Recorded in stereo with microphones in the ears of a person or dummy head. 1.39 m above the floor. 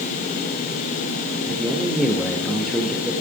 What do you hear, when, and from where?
1.5 s a man speaking: centre (ahead or behind), 2.5 m